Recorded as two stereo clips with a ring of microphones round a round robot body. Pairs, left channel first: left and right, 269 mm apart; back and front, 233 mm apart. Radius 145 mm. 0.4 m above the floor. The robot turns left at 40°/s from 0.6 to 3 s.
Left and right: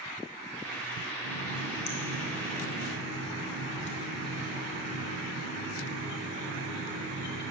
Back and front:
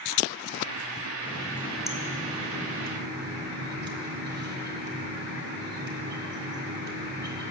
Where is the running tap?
115° left, 1.6 m; by 7.5 s 40° left, 1.6 m.